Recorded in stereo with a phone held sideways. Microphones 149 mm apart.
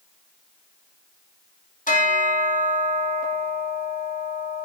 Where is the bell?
60° left (ahead or behind), 2.5 m.